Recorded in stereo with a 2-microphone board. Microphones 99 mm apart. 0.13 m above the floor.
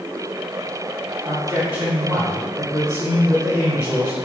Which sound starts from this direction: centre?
A man speaking, at 1.2 s.